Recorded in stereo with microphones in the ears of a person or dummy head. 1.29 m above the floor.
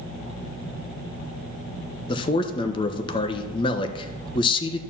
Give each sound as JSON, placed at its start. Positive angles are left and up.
{"t": 2.1, "sound": "a man speaking", "side_deg": 30, "distance_m": 1.0}